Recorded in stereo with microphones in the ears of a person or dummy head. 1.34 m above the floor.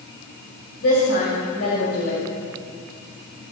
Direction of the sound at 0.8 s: 85° left.